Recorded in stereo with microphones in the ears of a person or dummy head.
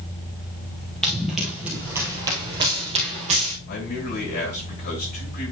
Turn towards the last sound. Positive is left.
turn(degrees=45)  # may be behind; listen again after turning